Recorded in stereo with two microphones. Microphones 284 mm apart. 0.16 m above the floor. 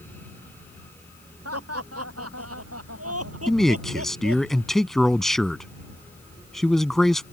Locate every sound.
1.4 s laughter: 60° right (ahead or behind); by 4.4 s 55° right (ahead or behind)
3.5 s a man speaking: centre (ahead or behind)